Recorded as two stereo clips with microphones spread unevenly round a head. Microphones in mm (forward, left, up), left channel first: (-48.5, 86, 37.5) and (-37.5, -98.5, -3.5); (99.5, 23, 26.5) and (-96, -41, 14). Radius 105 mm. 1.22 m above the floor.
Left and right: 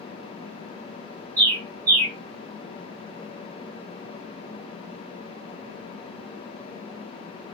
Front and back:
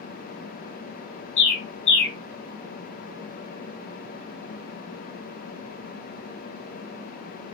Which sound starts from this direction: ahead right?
A bird, at 1.4 s.